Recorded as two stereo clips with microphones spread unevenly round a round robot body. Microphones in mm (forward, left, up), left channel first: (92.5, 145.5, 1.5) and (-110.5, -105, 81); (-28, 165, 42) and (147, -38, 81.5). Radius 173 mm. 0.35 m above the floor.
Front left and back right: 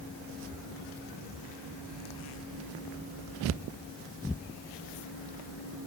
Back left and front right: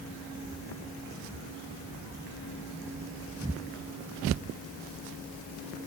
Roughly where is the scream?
I don't hear a scream.